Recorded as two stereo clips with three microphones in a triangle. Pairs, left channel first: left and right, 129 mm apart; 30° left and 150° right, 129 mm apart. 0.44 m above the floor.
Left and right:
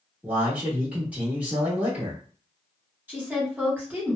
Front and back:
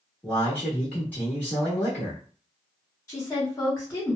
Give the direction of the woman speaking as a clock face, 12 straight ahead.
1 o'clock.